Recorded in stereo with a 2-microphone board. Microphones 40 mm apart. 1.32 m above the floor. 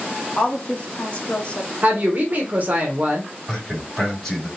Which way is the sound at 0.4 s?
35° left (ahead or behind).